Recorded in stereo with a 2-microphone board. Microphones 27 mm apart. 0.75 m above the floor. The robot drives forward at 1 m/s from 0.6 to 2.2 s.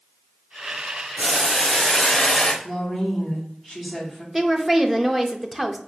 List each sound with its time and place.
1.2 s boiling: 15° left (ahead or behind), 1.1 m; by 2.5 s 25° left (ahead or behind), 0.7 m
2.6 s a woman speaking: 5° right (ahead or behind), 1.8 m
4.3 s a woman speaking: 10° right (ahead or behind), 0.5 m